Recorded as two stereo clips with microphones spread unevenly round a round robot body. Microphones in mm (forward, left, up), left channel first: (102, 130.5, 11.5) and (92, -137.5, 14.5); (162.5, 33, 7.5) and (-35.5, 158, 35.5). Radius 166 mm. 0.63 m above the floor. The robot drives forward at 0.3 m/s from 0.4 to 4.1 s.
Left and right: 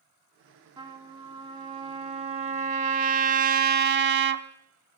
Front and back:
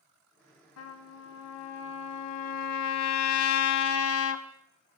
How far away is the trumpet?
About 1.4 m.